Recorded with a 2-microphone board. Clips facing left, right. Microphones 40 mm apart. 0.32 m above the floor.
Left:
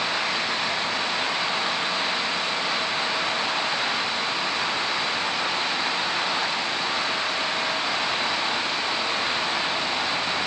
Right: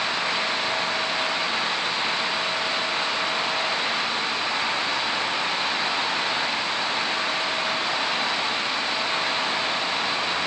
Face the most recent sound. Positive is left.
No sound to turn to.